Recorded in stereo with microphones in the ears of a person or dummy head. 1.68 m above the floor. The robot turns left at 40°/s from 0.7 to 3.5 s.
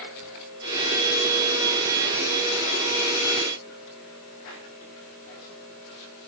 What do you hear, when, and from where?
Only background noise.